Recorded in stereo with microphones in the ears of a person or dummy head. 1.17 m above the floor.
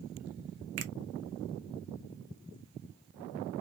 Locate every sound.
0.8 s a finger snap: 60° right (ahead or behind), 0.6 m